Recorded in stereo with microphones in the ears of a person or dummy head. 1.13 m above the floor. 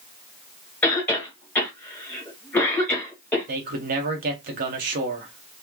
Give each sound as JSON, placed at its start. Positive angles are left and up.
{"t": 0.8, "sound": "a cough", "side_deg": 10, "distance_m": 1.8}
{"t": 3.5, "sound": "a man speaking", "side_deg": -45, "distance_m": 1.0}